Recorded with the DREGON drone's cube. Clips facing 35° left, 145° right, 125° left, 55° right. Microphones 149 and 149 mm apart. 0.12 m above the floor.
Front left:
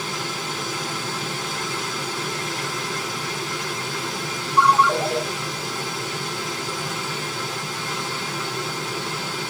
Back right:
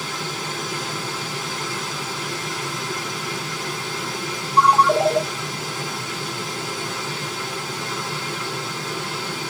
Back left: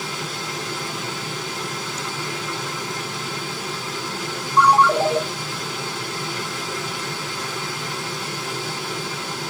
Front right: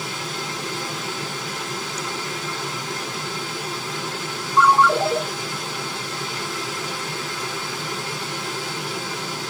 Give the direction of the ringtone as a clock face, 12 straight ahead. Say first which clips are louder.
Back right 2 dB, back left 1 dB; 6 o'clock.